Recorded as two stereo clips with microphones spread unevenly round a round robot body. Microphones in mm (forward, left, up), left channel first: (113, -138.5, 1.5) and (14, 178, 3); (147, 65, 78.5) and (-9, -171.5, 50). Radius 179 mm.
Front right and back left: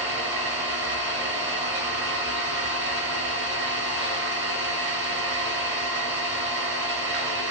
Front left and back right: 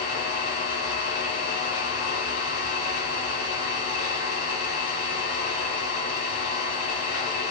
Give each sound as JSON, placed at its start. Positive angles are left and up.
{"t": 0.0, "sound": "an engine running", "azimuth_deg": 85, "distance_m": 1.0}